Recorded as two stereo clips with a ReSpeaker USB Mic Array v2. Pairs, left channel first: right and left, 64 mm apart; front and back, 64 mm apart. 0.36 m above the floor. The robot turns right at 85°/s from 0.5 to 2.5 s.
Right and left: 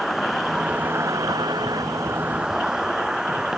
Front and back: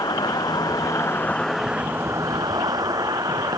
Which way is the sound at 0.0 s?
Straight ahead.